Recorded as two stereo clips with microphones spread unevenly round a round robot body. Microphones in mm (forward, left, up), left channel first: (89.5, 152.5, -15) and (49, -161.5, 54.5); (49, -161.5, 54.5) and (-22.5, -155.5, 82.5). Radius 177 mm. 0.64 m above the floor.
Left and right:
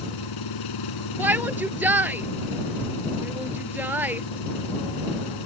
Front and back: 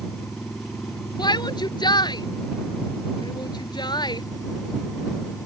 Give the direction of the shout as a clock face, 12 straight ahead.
12 o'clock.